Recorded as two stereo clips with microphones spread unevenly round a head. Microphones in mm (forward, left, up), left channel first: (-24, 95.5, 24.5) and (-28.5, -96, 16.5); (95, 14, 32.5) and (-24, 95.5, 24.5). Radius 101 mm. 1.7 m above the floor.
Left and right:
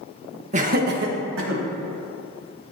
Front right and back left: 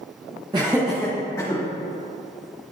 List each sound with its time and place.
0.5 s laughter: 145° right, 1.3 m; by 1.6 s 105° right, 2 m